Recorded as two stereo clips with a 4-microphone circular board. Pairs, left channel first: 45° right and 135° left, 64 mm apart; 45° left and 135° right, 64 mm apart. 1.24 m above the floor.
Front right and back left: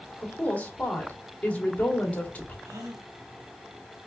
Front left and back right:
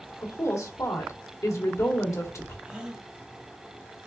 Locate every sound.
0.2 s a woman speaking: 20° left, 1.3 m
2.6 s a gasp: 145° left, 1.1 m